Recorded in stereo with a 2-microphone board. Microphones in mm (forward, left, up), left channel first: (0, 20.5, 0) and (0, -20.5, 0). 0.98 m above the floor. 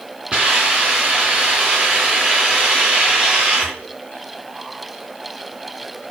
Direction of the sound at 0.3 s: 30° right (ahead or behind).